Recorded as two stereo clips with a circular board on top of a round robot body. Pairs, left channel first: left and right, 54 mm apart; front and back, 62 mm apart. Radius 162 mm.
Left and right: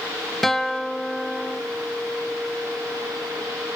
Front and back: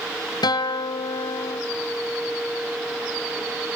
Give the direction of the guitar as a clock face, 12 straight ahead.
12 o'clock.